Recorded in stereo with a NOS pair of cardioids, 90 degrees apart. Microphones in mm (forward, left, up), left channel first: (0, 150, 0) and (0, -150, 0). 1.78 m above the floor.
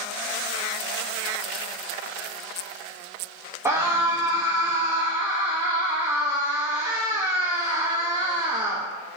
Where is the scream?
10° right, 1.2 m.